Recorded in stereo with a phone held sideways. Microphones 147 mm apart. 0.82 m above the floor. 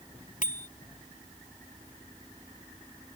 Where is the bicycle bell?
60° left (ahead or behind).